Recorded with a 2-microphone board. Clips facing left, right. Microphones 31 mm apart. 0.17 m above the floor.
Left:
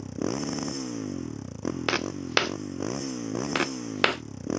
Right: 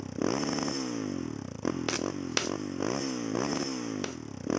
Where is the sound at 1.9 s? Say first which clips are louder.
Left 5 dB; 30° left (ahead or behind).